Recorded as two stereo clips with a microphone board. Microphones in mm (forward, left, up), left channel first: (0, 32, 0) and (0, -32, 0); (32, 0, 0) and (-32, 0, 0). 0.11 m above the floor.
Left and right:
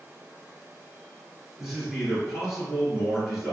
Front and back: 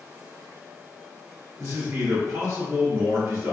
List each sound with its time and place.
1.6 s a man speaking: 175° right, 1.6 m